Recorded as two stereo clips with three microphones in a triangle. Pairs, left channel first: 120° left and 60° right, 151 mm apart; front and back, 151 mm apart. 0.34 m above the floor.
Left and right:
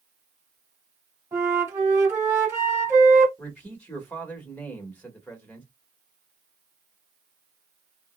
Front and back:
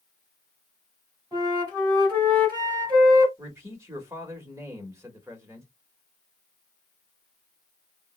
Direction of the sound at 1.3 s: 130° right.